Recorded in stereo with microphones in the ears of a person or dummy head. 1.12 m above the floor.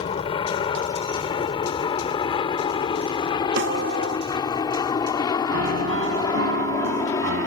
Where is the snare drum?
65° right (ahead or behind).